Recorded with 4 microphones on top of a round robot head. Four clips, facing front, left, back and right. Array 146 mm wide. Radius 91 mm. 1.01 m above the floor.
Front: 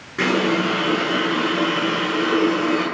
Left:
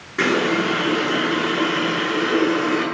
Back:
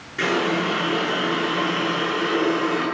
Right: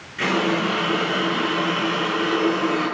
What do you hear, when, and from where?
0.2 s a running tap: 50° left, 9 m